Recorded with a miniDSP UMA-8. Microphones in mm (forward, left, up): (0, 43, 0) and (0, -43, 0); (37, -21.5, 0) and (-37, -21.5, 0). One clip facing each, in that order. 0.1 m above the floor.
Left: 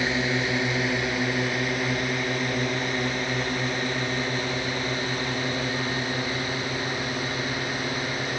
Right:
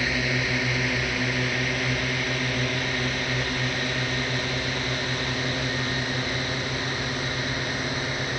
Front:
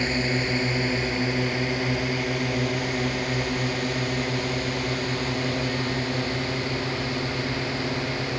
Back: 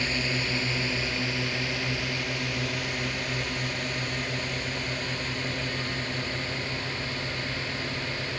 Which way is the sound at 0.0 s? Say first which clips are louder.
Left 2 dB, front 5 dB; 35° left.